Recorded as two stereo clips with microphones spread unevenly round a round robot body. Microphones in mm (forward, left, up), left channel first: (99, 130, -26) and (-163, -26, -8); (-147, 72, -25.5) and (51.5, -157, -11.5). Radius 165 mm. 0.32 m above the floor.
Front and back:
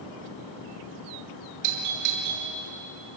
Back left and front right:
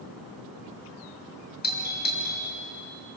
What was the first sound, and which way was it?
A doorbell, 170° right.